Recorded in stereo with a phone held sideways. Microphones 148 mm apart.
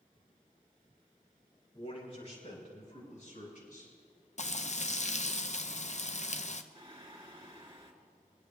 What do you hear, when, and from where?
1.7 s a man speaking: 50° left (ahead or behind), 2.5 m; by 3.9 s 65° left (ahead or behind), 5.5 m
4.4 s frying: 50° left (ahead or behind), 0.6 m
6.8 s singing: 40° right (ahead or behind), 1.9 m